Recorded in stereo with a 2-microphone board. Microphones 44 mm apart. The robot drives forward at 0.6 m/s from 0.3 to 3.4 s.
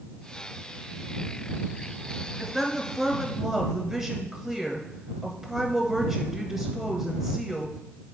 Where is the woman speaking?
5° right (ahead or behind), 1.5 m.